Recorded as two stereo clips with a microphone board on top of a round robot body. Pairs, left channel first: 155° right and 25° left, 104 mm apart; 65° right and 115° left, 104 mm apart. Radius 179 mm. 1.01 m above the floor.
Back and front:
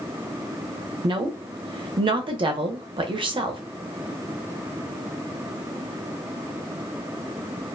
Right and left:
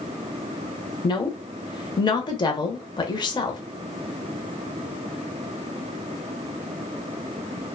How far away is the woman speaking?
About 0.6 m.